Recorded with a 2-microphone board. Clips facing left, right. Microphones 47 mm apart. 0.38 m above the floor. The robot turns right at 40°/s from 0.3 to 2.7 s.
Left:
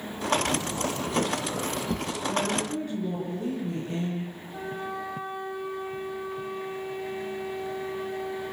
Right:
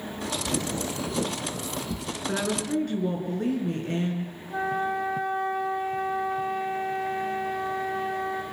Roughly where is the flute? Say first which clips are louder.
Right 9 dB; right.